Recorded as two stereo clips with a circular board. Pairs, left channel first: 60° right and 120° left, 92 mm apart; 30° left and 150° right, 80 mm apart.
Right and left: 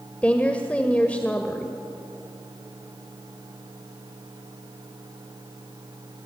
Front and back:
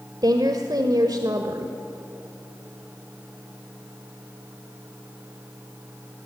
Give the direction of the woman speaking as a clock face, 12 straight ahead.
4 o'clock.